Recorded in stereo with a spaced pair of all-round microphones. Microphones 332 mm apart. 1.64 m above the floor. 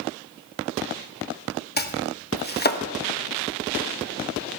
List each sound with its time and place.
1.8 s chopping: 30° left (ahead or behind), 1.1 m